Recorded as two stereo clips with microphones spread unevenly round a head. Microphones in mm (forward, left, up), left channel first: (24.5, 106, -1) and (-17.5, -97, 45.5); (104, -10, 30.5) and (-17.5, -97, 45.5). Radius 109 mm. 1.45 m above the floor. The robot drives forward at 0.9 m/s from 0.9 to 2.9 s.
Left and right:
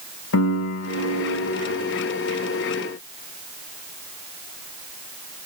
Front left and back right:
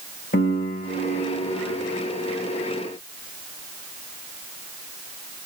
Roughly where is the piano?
Left.